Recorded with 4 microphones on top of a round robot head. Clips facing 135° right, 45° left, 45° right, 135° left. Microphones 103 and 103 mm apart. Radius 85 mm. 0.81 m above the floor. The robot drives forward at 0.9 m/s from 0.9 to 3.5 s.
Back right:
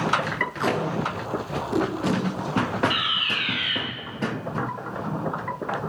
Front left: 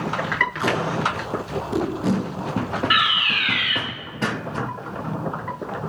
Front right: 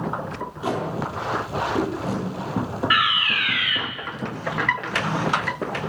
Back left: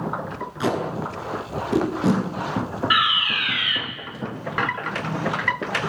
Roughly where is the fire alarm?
Ahead left.